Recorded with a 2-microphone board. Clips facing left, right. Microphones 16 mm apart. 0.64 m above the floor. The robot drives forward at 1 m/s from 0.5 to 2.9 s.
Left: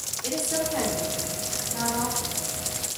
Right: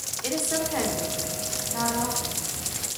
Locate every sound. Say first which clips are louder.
0.2 s a woman speaking: even; 35° right (ahead or behind), 1.6 m; by 2.4 s 15° right (ahead or behind), 3 m